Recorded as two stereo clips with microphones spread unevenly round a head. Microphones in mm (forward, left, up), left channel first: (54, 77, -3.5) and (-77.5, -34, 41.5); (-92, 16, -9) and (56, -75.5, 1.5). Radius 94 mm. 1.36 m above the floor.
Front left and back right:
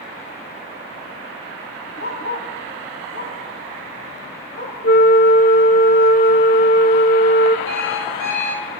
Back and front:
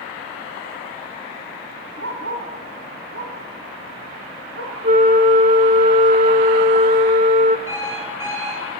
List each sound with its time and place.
2.0 s a dog barking: 5° right, 5 m; by 4.7 s straight ahead, 7 m
4.8 s a flute: 5° right, 1.4 m
7.7 s an alarm clock: 45° left, 9.5 m